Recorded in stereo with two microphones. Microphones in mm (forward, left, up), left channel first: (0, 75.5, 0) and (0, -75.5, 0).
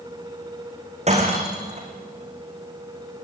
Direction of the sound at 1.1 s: 45° right (ahead or behind).